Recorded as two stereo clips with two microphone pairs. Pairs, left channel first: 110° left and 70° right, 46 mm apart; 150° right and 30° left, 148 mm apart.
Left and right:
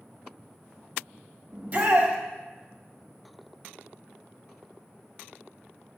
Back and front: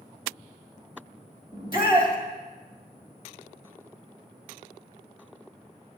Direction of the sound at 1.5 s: 20° right.